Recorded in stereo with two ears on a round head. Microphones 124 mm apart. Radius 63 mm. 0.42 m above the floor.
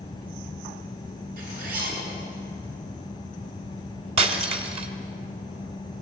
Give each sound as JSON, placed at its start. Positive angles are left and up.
{"t": 1.4, "sound": "a zipper", "side_deg": -70, "distance_m": 6.5}
{"t": 4.2, "sound": "breaking glass", "side_deg": -45, "distance_m": 1.9}